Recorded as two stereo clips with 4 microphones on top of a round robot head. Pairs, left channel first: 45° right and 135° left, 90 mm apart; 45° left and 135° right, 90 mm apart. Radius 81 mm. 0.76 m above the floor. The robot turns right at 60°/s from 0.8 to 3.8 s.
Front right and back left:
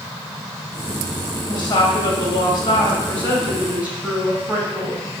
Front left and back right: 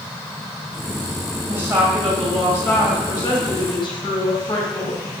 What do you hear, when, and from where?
1.5 s a woman speaking: 80° right, 1.5 m; by 5.1 s 60° left, 1.5 m